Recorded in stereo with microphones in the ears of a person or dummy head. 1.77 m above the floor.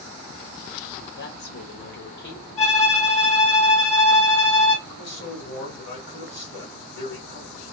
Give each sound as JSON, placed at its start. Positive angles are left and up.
{"t": 1.1, "sound": "a woman speaking", "side_deg": 70, "distance_m": 2.0}
{"t": 2.6, "sound": "a violin", "side_deg": 40, "distance_m": 2.0}
{"t": 4.8, "sound": "a man speaking", "side_deg": 55, "distance_m": 3.0}